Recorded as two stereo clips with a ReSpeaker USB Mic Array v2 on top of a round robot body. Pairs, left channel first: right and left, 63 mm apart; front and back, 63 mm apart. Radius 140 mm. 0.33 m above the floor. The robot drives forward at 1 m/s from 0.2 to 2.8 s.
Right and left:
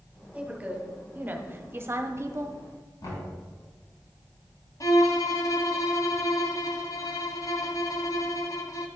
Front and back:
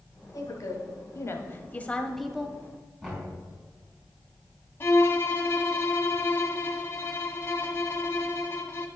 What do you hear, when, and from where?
0.3 s a woman speaking: 20° left, 2 m; by 2.6 s 115° left, 1.2 m
3.0 s knocking: 105° right, 4.5 m
4.8 s a violin: 55° right, 0.9 m